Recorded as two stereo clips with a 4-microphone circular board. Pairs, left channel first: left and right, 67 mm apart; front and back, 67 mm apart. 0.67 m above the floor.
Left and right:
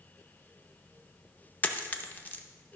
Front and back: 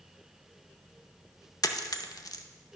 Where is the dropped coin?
30° left, 0.6 m.